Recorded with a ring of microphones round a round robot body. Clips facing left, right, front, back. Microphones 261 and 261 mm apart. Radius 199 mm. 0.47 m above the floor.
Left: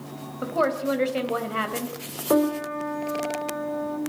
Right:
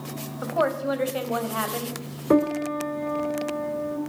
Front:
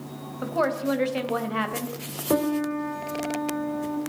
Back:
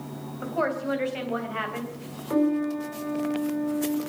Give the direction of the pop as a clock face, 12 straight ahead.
I don't hear a pop.